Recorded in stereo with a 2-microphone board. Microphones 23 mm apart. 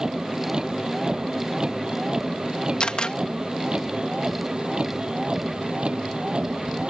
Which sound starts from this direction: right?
A vehicle, at 0.0 s.